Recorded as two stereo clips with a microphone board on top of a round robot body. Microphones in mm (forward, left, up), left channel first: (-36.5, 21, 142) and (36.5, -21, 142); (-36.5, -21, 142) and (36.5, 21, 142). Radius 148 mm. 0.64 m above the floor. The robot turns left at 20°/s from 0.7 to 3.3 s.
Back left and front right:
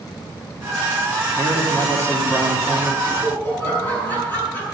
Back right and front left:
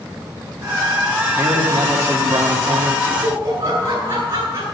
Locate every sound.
1.4 s a man speaking: 100° left, 2.5 m; by 3.0 s 70° left, 2.5 m
3.0 s laughter: 90° left, 6.5 m; by 4.6 s 85° left, 6.5 m